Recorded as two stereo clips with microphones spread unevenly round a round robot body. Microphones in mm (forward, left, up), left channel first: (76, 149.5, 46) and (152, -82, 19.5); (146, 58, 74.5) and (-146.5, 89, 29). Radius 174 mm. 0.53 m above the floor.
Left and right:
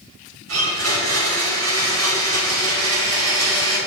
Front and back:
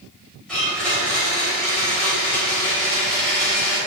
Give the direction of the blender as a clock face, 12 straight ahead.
3 o'clock.